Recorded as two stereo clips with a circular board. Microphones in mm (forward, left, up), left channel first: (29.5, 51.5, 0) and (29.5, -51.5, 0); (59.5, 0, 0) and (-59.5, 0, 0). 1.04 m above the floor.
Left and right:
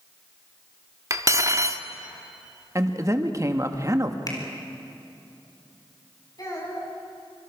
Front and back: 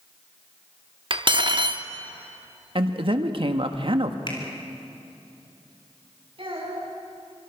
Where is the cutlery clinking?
145° right, 1.0 m.